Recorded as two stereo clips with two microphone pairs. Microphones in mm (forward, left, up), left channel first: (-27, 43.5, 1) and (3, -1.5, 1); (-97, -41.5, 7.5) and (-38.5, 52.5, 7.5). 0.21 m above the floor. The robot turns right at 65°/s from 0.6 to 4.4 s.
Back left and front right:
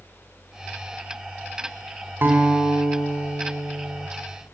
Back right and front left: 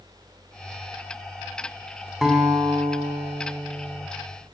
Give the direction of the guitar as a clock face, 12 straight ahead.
1 o'clock.